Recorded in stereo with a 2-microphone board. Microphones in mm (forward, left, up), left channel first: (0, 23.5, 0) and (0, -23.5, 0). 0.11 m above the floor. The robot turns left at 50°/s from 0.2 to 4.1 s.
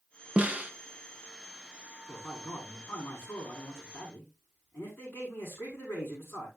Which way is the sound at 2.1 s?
150° left.